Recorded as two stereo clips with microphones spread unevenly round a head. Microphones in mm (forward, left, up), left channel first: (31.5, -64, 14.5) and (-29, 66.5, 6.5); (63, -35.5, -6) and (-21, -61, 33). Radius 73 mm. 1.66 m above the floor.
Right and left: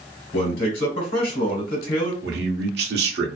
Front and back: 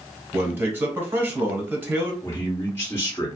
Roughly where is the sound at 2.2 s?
Left.